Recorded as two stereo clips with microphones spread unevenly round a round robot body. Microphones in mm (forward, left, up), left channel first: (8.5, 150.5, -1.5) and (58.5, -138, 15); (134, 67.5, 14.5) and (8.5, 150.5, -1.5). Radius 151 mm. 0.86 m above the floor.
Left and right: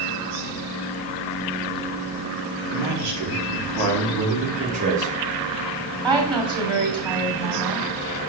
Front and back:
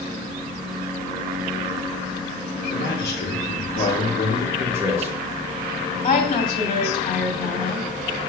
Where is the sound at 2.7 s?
60° right, 1.8 m.